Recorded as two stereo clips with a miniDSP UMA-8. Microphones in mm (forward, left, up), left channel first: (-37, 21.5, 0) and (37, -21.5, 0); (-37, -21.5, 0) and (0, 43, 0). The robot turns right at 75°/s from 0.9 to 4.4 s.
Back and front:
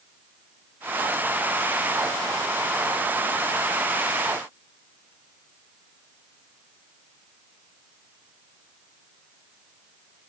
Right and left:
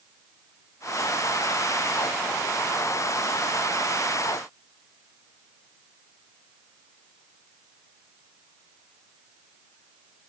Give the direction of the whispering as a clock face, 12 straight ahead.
No whispering in this recording.